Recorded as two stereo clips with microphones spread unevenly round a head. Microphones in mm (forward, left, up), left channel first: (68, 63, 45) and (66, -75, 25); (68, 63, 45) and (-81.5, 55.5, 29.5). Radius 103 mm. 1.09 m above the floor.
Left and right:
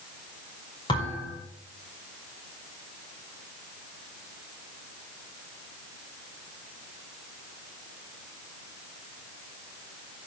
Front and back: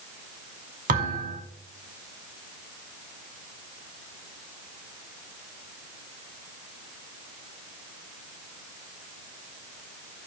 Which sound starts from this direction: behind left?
A thud, at 0.9 s.